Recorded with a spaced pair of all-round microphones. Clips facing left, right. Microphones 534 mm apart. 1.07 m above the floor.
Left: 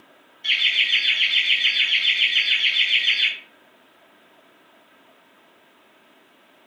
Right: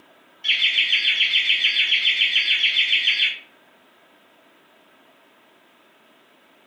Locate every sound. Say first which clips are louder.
0.4 s laughter: even; 50° right (ahead or behind), 1.1 m